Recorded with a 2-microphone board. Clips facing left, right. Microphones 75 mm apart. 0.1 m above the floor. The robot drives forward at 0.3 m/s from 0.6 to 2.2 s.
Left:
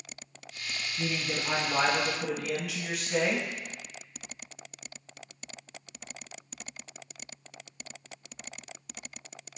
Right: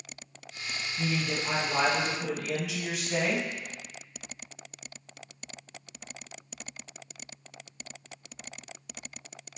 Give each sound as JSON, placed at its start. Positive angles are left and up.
{"t": 1.0, "sound": "a man speaking", "side_deg": -5, "distance_m": 2.0}